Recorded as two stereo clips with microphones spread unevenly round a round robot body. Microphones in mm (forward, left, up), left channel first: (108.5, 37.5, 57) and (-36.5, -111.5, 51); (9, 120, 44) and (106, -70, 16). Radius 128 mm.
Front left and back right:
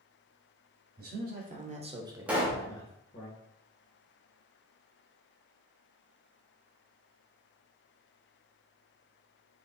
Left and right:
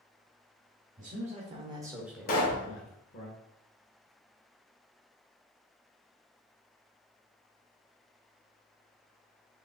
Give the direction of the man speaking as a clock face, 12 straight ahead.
4 o'clock.